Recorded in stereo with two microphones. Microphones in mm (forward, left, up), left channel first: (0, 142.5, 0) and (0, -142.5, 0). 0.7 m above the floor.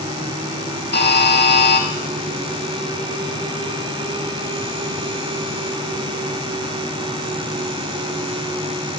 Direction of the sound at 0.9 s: 35° left (ahead or behind).